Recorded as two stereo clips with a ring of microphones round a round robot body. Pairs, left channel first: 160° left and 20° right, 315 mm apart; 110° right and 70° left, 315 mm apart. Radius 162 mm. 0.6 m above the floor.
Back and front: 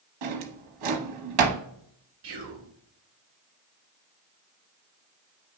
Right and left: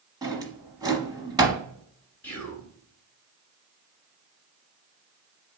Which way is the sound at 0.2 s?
10° right.